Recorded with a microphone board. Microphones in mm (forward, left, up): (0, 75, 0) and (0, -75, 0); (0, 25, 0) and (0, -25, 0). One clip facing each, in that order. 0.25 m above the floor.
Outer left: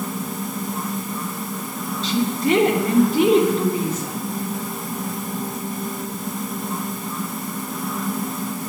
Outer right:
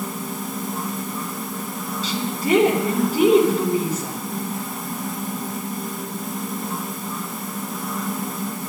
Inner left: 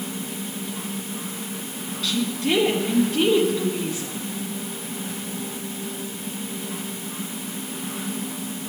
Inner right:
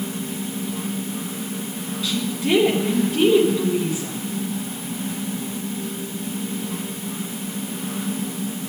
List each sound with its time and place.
2.0 s a woman speaking: 10° right (ahead or behind), 2.5 m